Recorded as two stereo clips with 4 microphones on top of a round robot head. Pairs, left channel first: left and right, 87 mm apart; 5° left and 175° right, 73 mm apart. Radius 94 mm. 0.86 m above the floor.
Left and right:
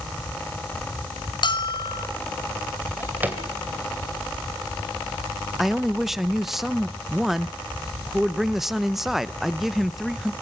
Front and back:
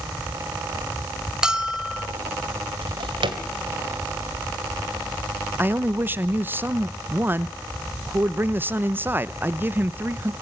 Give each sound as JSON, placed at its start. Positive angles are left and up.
{"t": 1.4, "sound": "a bell", "azimuth_deg": 110, "distance_m": 1.6}
{"t": 2.8, "sound": "a drawer", "azimuth_deg": -165, "distance_m": 2.5}
{"t": 5.6, "sound": "a man speaking", "azimuth_deg": -170, "distance_m": 0.7}